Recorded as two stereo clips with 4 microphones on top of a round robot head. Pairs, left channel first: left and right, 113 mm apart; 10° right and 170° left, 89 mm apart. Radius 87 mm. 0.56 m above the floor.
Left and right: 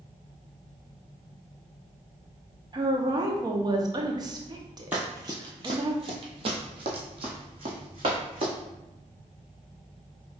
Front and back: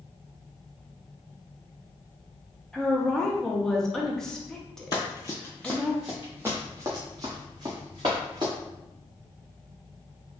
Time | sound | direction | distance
2.7 | a woman speaking | 90° right | 0.7 m
4.9 | running footsteps | 15° right | 0.6 m